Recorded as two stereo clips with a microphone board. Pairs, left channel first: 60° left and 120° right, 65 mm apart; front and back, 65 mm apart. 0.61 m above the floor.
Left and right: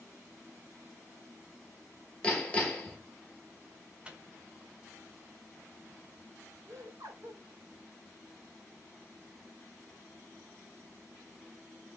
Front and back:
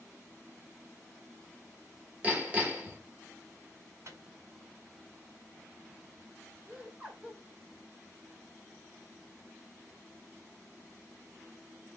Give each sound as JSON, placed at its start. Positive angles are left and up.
{"t": 2.2, "sound": "hammering", "azimuth_deg": 125, "distance_m": 0.9}
{"t": 4.0, "sound": "a microwave", "azimuth_deg": 175, "distance_m": 0.6}
{"t": 6.7, "sound": "laughter", "azimuth_deg": -110, "distance_m": 1.8}